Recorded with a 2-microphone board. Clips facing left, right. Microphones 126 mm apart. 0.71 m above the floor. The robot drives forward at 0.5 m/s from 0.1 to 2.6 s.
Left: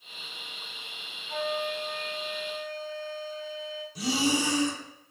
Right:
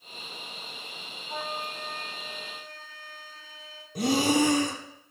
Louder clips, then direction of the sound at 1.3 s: Left 5 dB; 30° right (ahead or behind).